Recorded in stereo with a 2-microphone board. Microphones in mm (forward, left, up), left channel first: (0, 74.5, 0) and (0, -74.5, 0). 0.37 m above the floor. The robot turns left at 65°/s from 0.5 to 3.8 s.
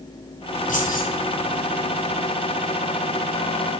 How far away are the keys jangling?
About 3 m.